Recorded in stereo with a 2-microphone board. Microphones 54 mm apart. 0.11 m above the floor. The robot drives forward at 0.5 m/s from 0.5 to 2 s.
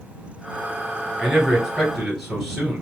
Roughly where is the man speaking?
Centre.